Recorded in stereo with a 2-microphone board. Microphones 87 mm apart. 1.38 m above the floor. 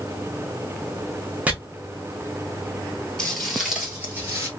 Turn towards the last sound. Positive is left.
turn(degrees=-30)  # may be behind; listen again after turning